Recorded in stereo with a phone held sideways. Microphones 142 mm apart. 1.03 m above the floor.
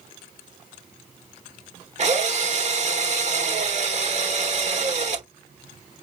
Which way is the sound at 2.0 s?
50° right (ahead or behind).